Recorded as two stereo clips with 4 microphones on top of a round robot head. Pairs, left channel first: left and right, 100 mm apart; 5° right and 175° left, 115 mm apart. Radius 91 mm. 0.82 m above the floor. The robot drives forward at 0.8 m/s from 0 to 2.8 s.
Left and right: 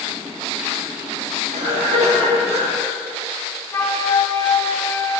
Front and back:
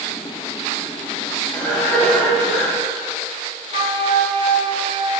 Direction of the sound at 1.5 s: 85° right.